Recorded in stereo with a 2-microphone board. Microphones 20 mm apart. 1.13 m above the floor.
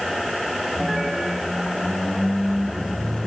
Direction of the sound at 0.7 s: 70° left (ahead or behind).